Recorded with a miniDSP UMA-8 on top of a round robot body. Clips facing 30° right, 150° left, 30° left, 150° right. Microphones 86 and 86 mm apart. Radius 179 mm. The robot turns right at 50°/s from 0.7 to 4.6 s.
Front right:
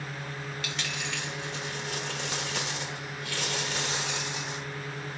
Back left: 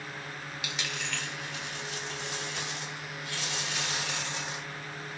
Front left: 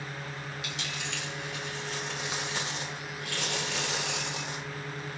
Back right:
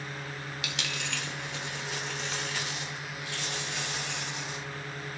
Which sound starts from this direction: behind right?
A dropped coin, at 0.6 s.